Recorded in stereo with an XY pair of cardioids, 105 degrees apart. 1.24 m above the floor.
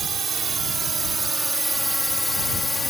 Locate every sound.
0.0 s a drone: 50° right; by 2.9 s 25° left